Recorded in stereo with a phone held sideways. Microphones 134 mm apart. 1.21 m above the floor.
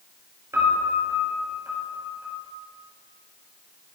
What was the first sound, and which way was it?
A piano, 20° right (ahead or behind).